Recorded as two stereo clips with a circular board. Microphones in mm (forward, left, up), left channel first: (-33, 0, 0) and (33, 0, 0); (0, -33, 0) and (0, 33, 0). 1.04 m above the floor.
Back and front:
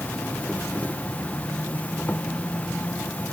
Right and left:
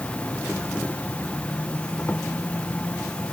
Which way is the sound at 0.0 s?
140° right.